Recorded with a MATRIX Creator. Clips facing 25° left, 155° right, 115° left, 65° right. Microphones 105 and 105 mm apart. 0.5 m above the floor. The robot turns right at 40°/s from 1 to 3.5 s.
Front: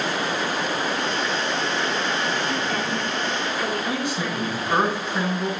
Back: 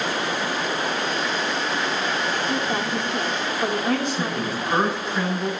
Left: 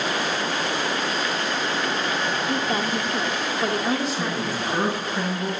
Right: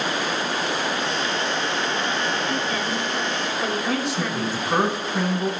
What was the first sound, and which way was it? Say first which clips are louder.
A woman speaking: back 1 dB, left 1 dB; 130° left.